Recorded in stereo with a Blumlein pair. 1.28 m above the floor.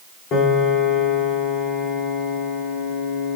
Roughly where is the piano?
Ahead left.